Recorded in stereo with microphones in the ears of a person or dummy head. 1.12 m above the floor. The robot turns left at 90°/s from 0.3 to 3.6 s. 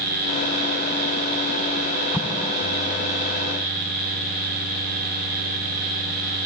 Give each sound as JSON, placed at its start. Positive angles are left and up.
{"t": 2.1, "sound": "an explosion", "side_deg": -10}